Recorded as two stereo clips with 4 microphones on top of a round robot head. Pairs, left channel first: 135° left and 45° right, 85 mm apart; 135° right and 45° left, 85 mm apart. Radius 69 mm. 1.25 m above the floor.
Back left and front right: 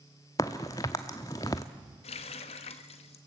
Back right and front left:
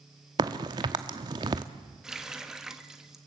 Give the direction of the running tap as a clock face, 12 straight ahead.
8 o'clock.